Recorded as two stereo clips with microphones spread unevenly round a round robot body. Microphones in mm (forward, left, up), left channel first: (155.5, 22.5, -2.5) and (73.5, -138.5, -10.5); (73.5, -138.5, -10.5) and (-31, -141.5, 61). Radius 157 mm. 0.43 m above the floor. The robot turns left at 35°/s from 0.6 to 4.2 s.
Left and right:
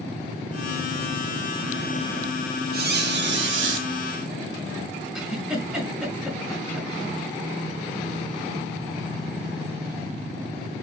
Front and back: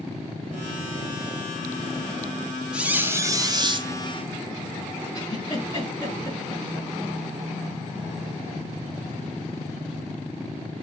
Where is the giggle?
35° right, 4 m.